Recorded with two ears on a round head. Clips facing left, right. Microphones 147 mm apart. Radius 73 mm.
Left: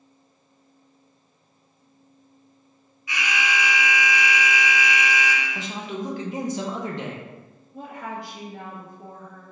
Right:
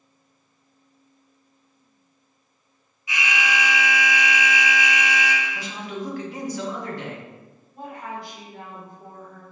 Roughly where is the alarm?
Right.